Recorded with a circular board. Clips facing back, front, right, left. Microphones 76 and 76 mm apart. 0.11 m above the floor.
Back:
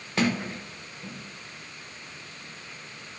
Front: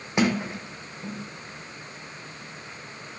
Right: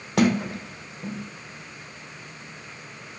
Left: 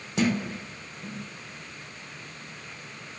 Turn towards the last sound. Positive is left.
turn(degrees=-70)